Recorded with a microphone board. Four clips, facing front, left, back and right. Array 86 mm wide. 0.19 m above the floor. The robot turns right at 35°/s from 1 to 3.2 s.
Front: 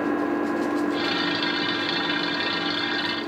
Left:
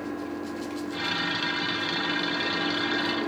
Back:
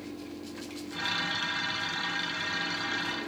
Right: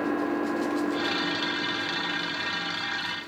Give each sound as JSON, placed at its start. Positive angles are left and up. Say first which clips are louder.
{"t": 0.0, "sound": "an engine running", "louder": "right 6 dB, front 17 dB", "azimuth_deg": -20}